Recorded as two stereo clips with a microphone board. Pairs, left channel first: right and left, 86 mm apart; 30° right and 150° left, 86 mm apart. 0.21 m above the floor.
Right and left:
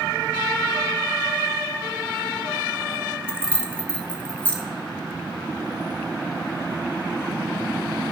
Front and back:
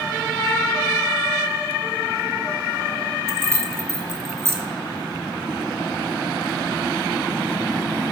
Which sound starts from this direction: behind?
Keys jangling, at 3.3 s.